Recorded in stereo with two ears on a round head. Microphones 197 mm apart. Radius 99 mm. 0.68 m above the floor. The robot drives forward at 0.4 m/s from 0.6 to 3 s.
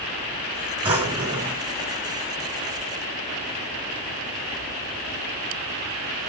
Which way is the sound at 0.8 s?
10° right (ahead or behind).